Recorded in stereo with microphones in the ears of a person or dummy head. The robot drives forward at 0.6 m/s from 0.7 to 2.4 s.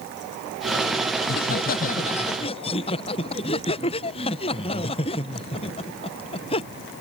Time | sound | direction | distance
1.2 | laughter | 45° left (ahead or behind) | ?